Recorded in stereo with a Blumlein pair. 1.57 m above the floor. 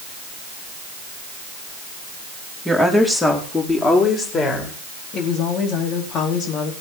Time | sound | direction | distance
2.6 | a woman speaking | straight ahead | 4 m
5.1 | a woman speaking | 30° left | 4 m